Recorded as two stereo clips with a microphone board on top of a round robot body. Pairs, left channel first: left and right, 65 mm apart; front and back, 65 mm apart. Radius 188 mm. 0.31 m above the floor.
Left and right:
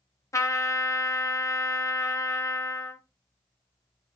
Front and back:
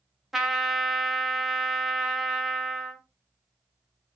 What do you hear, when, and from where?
0.3 s a trumpet: 95° left, 0.8 m